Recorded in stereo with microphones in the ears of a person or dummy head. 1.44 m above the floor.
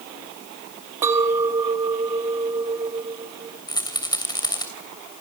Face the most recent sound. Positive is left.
turn(degrees=25)  # may be behind; listen again after turning